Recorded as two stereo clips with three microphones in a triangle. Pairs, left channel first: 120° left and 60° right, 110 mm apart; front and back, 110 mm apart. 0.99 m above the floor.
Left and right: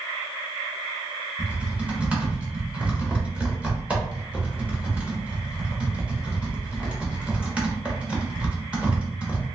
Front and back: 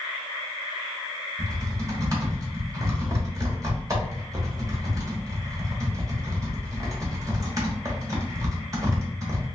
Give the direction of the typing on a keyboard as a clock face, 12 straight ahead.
5 o'clock.